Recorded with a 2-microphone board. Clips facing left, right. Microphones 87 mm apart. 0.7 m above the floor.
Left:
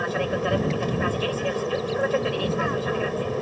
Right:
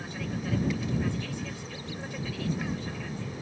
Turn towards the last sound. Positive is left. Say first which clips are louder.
# left 11 dB
turn(degrees=65)  # may be behind; listen again after turning